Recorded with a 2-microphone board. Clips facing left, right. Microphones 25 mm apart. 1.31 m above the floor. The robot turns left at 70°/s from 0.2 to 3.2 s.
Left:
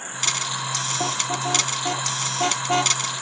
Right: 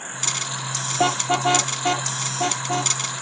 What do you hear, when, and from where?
1.0 s a car horn: 85° right; by 3.0 s 45° left (ahead or behind)